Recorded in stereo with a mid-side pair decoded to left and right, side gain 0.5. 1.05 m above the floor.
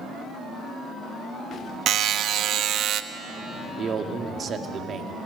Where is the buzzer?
65° right, 1.1 m.